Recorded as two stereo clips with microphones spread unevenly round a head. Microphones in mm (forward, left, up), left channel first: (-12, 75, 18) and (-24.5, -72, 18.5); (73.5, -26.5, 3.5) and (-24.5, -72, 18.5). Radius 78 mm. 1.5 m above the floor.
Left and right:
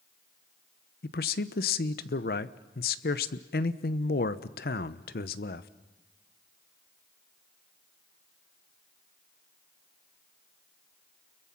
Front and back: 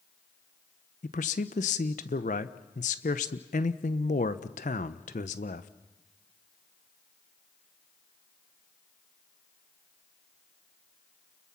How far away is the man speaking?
About 0.9 m.